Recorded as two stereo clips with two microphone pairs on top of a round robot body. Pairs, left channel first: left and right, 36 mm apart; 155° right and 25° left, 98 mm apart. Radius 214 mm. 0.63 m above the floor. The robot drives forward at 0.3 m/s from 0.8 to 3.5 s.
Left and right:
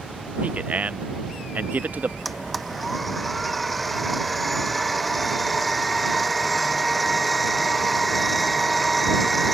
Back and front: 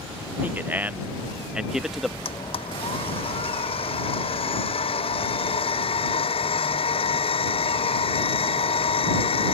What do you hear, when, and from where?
0.4 s a man speaking: 45° right; by 2.1 s 65° right
2.2 s a blender: straight behind